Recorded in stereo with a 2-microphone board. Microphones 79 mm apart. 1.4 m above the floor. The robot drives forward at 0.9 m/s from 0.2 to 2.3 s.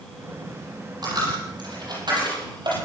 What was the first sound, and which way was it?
A dropped coin, 60° right (ahead or behind).